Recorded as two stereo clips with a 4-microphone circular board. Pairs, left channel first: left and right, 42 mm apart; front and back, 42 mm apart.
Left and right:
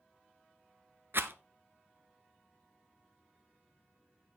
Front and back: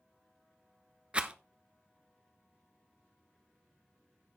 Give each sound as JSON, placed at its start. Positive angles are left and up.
{"t": 1.1, "sound": "a rattle", "azimuth_deg": -115, "distance_m": 0.9}